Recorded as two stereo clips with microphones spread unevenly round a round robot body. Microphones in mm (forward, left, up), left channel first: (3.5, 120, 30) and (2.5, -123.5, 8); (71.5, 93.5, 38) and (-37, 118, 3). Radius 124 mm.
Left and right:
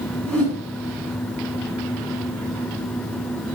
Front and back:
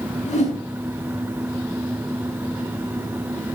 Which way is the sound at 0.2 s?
5° left.